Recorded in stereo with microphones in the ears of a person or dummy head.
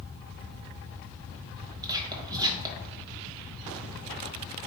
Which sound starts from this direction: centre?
Whispering, at 1.8 s.